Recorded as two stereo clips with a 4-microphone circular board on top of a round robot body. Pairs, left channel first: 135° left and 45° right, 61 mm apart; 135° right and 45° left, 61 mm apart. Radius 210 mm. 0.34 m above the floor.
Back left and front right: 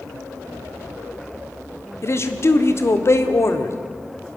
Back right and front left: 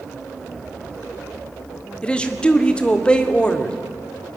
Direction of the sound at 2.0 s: 155° left.